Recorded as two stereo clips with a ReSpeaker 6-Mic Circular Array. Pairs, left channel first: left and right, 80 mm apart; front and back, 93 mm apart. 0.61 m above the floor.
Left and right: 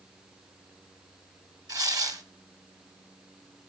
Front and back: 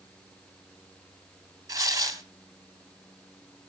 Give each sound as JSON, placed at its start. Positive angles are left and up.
{"t": 1.7, "sound": "tearing paper", "azimuth_deg": -130, "distance_m": 1.8}